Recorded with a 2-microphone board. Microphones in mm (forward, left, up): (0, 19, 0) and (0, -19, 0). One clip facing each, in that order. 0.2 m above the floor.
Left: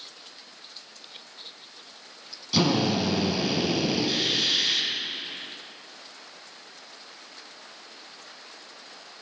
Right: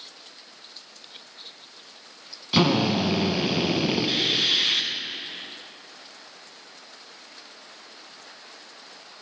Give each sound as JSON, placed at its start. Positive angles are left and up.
{"t": 2.5, "sound": "a drill", "side_deg": -35, "distance_m": 0.8}